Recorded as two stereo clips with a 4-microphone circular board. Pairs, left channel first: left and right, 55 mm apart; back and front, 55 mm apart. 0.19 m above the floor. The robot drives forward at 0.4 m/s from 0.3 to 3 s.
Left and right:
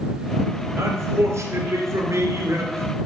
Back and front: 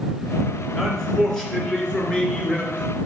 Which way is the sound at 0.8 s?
95° right.